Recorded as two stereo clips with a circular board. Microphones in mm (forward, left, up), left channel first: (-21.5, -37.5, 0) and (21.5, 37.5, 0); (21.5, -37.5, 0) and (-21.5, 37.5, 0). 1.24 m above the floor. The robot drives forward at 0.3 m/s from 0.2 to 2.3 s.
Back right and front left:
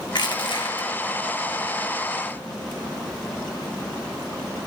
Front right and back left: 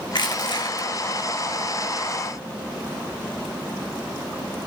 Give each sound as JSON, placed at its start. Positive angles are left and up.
{"t": 0.1, "sound": "crushing", "azimuth_deg": -90, "distance_m": 2.0}